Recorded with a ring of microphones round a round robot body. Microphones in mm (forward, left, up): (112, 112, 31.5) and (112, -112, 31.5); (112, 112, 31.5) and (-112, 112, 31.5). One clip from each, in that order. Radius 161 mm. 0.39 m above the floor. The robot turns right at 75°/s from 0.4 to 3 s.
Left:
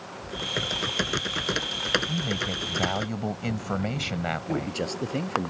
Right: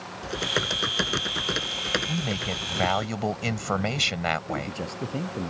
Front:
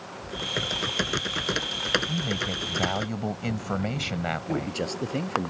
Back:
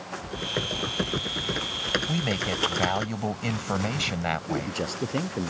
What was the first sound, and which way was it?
Typing on a keyboard, 85° right.